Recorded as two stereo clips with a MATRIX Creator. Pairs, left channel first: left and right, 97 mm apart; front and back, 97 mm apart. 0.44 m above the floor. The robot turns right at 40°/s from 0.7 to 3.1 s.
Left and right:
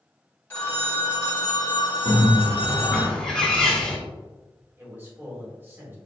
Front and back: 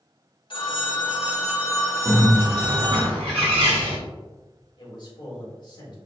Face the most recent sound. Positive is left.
turn(degrees=-25)